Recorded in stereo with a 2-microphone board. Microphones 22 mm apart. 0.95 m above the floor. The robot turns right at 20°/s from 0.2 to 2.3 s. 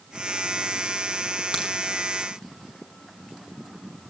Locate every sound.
1.5 s a crack: 50° right (ahead or behind), 6 m; by 1.7 s 55° right (ahead or behind), 6 m